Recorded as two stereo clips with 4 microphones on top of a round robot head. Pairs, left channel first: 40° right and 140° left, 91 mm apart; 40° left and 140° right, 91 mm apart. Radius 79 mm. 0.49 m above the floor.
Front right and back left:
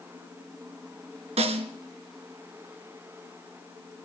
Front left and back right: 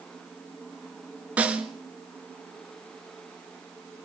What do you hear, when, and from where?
1.4 s a snare drum: 145° left, 2 m